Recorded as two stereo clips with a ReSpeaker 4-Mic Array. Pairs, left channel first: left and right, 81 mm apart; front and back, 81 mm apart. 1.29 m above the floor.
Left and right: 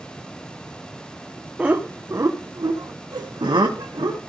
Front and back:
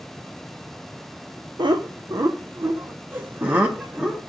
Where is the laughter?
165° right, 0.8 m; by 4.2 s 105° right, 1.8 m.